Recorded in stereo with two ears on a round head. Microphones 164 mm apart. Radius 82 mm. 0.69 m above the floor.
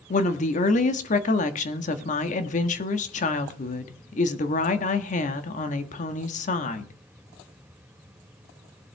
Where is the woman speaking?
40° left (ahead or behind), 1.5 m.